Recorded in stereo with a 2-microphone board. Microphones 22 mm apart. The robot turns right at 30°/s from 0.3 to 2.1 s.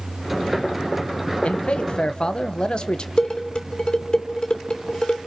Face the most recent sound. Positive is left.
turn(degrees=50)  # may be behind; listen again after turning